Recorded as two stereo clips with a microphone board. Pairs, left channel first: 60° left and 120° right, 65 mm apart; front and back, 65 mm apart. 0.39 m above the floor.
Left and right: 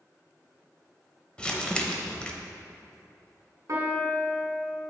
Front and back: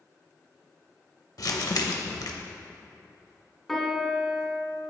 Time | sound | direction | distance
1.4 | crumpling | 15° right | 0.6 m
3.7 | a piano | 90° right | 0.9 m